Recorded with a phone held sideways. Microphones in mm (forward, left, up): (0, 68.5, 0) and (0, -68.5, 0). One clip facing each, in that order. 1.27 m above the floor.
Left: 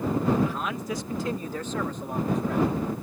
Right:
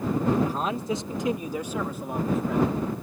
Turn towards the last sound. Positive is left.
turn(degrees=0)  # may be behind; listen again after turning